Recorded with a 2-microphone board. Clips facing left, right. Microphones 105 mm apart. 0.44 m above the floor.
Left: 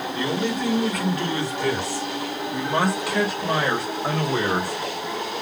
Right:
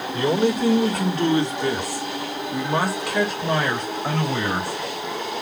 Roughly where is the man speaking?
Right.